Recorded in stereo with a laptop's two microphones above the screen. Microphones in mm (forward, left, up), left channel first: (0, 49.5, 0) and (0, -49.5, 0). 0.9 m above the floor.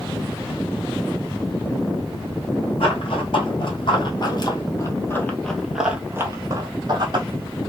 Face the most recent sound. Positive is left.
turn(degrees=-50)  # may be behind; listen again after turning